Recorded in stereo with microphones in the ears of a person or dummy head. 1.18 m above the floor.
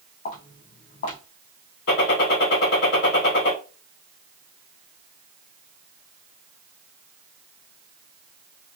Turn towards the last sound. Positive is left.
turn(degrees=75)  # may be behind; listen again after turning